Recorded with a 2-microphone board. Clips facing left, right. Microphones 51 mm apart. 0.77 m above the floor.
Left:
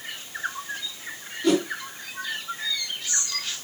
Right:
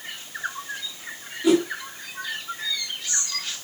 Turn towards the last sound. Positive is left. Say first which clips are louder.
# right 3 dB
turn(degrees=-10)  # may be behind; listen again after turning